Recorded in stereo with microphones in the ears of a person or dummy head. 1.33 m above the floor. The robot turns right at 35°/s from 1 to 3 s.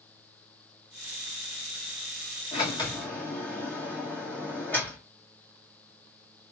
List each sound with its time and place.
2.5 s a sliding door: 25° left (ahead or behind), 1.7 m; by 6.5 s 10° left (ahead or behind), 1.7 m